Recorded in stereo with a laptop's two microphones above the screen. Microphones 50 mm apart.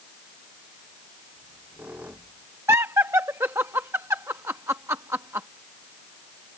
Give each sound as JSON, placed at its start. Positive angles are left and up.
{"t": 1.4, "sound": "a squeak", "side_deg": -30}
{"t": 2.7, "sound": "laughter", "side_deg": -75}